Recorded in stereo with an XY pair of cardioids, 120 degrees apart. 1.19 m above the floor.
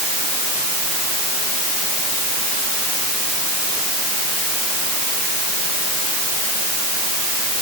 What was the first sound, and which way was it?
Only background noise.